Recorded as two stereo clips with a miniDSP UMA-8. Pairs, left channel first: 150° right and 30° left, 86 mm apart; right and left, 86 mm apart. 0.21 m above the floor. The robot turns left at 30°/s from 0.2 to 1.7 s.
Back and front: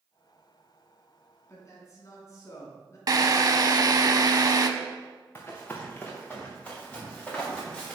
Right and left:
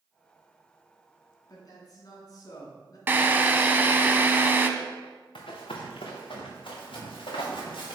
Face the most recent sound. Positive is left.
turn(degrees=-70)